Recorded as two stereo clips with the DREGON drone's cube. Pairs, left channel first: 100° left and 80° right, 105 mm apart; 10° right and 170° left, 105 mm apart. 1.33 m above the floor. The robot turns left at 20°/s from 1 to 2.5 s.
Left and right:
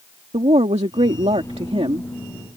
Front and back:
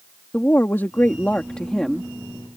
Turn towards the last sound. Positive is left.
turn(degrees=-110)